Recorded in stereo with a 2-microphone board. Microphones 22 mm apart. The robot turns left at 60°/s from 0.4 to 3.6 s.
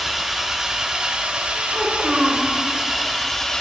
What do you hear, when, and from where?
0.0 s an engine running: 20° right, 1.1 m; by 3.6 s 150° left, 1.1 m
1.7 s a child speaking: 30° right, 3 m; by 2.5 s 75° right, 3 m